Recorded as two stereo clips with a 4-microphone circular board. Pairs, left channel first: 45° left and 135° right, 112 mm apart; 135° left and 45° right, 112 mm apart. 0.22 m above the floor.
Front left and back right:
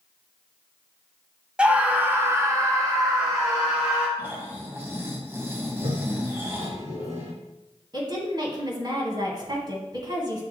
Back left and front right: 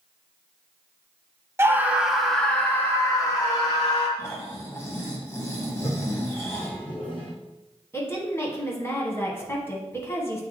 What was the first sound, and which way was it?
A scream, 65° right.